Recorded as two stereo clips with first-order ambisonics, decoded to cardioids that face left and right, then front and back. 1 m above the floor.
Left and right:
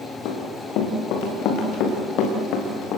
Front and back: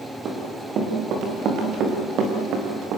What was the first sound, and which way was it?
Running footsteps, 125° left.